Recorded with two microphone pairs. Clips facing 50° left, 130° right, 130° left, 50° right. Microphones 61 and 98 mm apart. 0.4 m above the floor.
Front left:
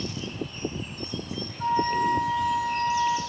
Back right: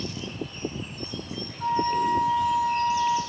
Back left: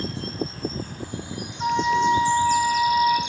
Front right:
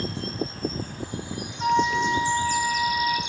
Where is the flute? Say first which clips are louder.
Even, back left 1 dB; 85° left, 0.7 m.